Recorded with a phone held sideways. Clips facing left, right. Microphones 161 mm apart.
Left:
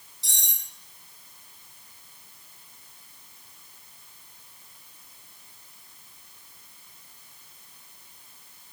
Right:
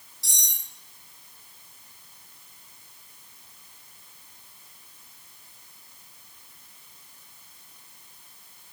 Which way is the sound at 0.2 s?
20° left (ahead or behind).